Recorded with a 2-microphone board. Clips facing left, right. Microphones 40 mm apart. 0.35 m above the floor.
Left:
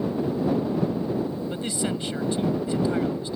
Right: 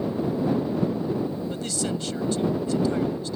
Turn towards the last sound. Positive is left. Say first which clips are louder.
# left 1 dB
turn(degrees=20)  # may be behind; listen again after turning